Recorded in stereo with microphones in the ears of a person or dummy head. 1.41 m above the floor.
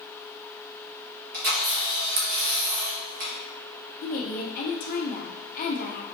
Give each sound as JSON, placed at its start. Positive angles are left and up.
{"t": 1.3, "sound": "a camera shutter", "side_deg": -40, "distance_m": 0.9}
{"t": 4.0, "sound": "a woman speaking", "side_deg": 40, "distance_m": 0.6}